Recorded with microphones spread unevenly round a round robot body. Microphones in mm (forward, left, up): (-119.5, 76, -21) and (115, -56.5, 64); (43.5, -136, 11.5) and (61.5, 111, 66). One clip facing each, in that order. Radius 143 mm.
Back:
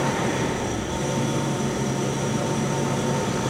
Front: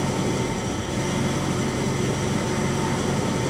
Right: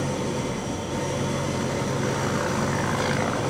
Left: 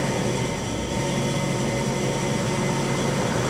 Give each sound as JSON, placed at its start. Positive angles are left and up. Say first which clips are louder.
{"t": 0.0, "sound": "an engine running", "louder": "even, left 2 dB", "azimuth_deg": 55, "distance_m": 9.0}